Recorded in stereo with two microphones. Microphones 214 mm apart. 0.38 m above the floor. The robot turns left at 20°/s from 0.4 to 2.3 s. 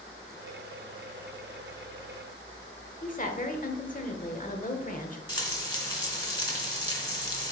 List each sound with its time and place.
3.0 s a woman speaking: 40° left (ahead or behind), 1.1 m
5.3 s frying: 20° left (ahead or behind), 2 m